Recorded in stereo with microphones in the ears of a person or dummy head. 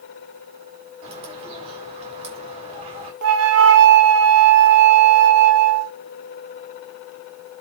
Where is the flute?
75° right (ahead or behind), 1.2 m.